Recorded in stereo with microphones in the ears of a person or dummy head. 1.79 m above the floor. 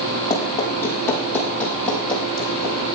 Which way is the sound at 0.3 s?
20° left (ahead or behind).